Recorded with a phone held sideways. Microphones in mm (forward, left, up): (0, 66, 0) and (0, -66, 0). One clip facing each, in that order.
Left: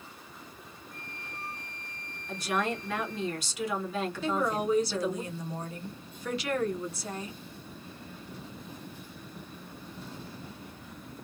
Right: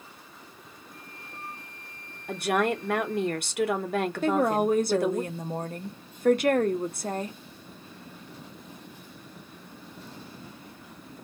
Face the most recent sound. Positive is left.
turn(degrees=-50)  # may be behind; listen again after turning